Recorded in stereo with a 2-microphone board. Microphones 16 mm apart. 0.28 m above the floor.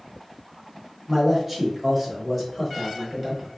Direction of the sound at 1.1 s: 5° left (ahead or behind).